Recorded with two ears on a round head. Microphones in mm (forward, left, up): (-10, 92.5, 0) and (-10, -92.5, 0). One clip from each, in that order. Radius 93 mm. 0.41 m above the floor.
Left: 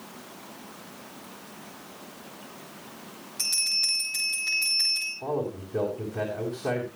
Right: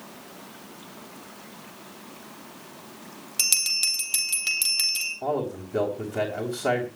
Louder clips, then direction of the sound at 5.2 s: Right 2 dB; 50° right (ahead or behind).